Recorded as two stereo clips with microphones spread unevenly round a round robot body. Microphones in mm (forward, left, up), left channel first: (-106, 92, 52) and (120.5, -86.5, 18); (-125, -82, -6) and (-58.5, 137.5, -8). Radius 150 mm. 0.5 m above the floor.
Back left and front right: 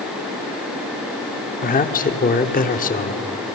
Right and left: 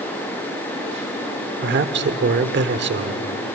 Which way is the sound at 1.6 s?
80° left.